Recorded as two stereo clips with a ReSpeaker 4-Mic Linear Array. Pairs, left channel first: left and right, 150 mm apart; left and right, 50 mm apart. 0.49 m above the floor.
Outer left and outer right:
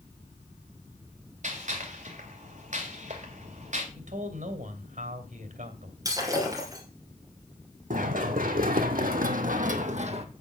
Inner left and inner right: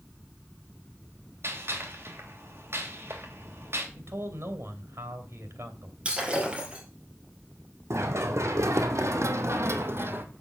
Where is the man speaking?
65° right (ahead or behind), 3 m.